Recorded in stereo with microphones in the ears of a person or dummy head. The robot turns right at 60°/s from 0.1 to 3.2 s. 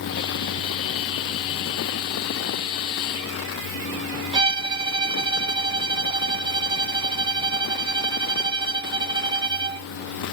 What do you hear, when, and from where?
4.3 s a violin: 25° right (ahead or behind), 0.9 m